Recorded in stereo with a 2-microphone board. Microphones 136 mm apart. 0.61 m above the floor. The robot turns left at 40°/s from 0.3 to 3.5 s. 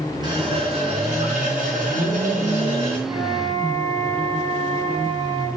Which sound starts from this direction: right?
A flute, at 3.1 s.